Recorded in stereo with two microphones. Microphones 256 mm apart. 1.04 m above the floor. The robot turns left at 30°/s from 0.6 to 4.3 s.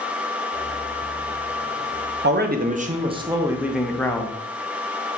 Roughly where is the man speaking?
Behind right.